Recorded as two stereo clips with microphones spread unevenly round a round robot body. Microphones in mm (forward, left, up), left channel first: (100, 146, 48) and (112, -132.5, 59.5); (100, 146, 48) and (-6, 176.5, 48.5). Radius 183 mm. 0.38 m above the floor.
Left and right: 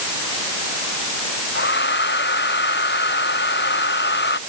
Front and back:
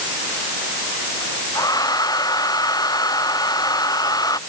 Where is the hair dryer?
40° left.